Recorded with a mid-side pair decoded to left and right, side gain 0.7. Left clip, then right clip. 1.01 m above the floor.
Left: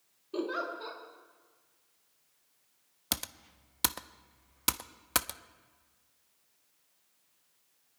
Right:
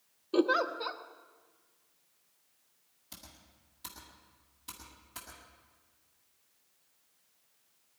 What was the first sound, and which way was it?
A giggle, 35° right.